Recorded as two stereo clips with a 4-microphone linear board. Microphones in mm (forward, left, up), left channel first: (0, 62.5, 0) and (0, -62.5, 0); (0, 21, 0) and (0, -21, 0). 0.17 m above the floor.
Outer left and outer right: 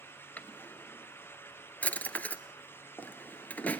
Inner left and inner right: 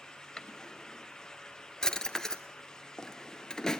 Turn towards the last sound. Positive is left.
turn(degrees=10)  # may be behind; listen again after turning